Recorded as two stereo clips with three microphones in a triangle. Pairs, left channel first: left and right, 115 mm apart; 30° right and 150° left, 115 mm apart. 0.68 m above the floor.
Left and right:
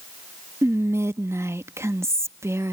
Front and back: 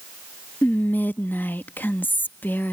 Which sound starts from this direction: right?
Whispering, at 0.6 s.